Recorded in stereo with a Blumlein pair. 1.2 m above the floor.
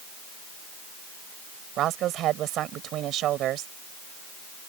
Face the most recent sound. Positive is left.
turn(degrees=-35)